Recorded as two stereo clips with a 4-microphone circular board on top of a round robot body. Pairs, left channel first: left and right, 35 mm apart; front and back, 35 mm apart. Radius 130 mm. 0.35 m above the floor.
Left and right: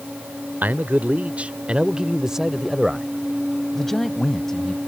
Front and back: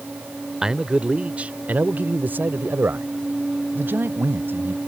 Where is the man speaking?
110° right; by 4.8 s 165° left.